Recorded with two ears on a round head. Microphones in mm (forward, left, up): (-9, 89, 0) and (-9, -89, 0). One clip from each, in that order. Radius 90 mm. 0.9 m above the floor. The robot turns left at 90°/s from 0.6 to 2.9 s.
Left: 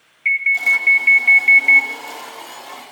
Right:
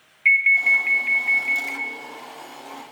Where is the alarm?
160° right, 0.7 m; by 1.9 s 80° left, 0.7 m.